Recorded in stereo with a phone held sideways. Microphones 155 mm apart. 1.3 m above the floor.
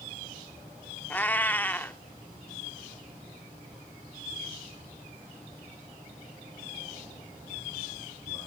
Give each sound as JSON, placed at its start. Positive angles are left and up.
{"t": 1.1, "sound": "a cat meowing", "side_deg": 10, "distance_m": 0.9}